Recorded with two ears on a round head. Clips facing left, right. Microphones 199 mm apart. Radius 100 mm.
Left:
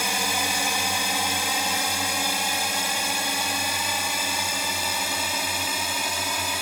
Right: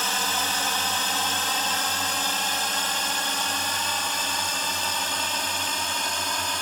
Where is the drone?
10° left (ahead or behind).